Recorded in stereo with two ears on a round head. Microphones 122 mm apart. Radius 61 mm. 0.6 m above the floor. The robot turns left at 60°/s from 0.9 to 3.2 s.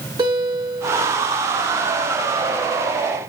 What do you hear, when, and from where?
0.2 s a guitar: 30° right (ahead or behind), 6 m; by 1.2 s 45° right (ahead or behind), 6 m